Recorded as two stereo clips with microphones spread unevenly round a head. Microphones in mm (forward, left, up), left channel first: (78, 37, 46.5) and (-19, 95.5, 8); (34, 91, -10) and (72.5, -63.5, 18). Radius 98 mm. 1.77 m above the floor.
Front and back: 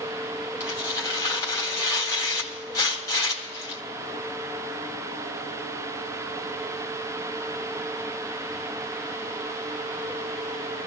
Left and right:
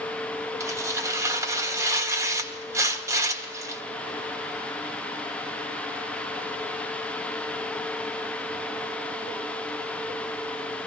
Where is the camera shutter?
No camera shutter in this recording.